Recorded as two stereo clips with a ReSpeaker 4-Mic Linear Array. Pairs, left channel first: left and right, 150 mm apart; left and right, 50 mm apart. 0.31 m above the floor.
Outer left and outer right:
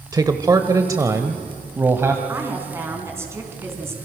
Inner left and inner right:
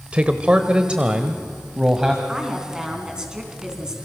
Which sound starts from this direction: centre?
A woman speaking, at 2.3 s.